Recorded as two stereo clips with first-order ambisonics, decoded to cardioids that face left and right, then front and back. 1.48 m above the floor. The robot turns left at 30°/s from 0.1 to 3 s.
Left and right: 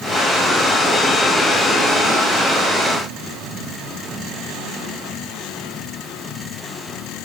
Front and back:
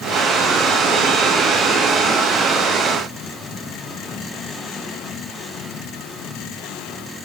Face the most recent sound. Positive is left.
No sound to turn to.